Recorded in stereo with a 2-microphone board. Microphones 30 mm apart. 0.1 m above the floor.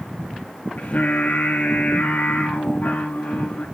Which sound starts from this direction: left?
Singing, at 0.8 s.